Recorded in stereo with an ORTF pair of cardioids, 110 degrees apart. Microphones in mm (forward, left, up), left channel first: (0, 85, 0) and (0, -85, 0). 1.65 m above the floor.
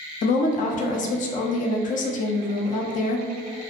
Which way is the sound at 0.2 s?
50° left.